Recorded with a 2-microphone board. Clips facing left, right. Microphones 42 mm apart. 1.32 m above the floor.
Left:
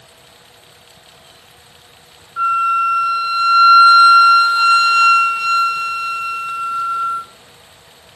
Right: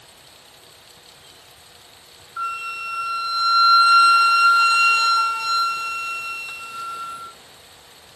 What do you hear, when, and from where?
2.4 s a flute: 35° left (ahead or behind), 1.5 m